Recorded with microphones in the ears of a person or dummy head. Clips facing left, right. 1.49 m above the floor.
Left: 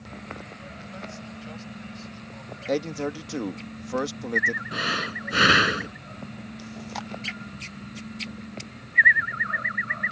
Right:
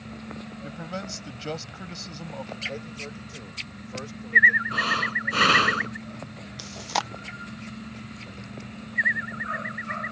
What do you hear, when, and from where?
0.6 s a man speaking: 65° right (ahead or behind)
2.7 s a man speaking: 80° left
4.7 s breathing: 15° left (ahead or behind)
6.6 s chewing: 60° right (ahead or behind)